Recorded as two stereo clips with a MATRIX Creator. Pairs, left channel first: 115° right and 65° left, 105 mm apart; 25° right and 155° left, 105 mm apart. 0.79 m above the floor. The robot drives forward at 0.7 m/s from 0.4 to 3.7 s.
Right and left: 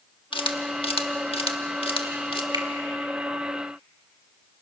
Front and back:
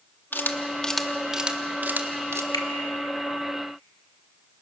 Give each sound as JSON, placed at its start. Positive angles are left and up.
{"t": 0.3, "sound": "a camera shutter", "azimuth_deg": -90, "distance_m": 1.3}
{"t": 2.5, "sound": "a finger snap", "azimuth_deg": 25, "distance_m": 1.7}